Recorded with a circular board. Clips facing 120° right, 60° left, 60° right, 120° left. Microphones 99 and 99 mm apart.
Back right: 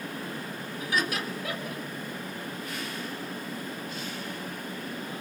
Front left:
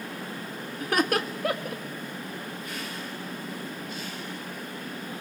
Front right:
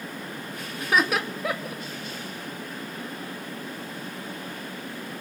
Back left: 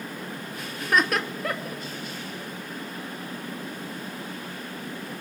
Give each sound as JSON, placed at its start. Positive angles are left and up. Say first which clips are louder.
{"t": 0.8, "sound": "laughter", "louder": "front left 5 dB, even", "azimuth_deg": 25, "distance_m": 1.7}